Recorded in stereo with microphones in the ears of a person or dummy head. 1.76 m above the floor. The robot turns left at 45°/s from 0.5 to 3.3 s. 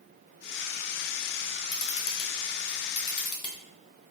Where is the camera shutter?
65° left (ahead or behind), 0.7 m; by 3.5 s 25° left (ahead or behind), 0.7 m.